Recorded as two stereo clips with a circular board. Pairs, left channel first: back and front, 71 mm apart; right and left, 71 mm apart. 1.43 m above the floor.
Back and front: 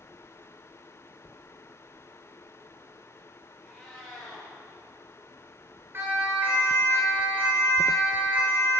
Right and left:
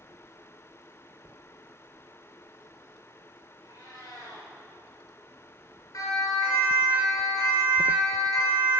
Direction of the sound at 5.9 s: 55° right.